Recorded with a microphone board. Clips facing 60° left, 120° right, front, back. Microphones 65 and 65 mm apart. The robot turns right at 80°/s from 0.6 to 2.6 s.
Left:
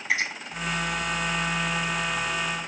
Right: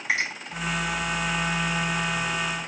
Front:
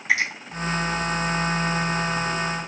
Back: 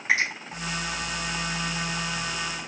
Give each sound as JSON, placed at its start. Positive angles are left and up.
{"t": 0.1, "sound": "a finger snap", "azimuth_deg": -120, "distance_m": 3.0}